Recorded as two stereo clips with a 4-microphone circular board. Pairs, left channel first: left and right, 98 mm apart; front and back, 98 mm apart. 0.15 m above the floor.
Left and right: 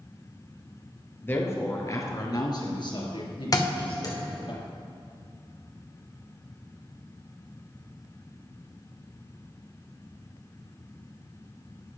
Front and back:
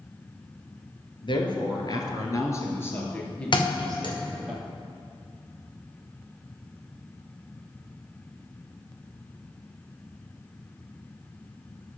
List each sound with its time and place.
1.2 s a woman speaking: 25° left, 2.5 m; by 4.5 s 95° left, 3.5 m
3.5 s a thud: 40° left, 3 m